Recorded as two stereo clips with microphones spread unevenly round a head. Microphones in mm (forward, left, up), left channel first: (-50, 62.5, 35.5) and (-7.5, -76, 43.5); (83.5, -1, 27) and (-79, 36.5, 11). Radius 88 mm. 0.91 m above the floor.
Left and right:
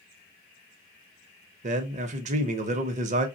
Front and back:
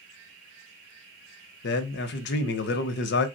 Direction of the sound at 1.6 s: 35° right.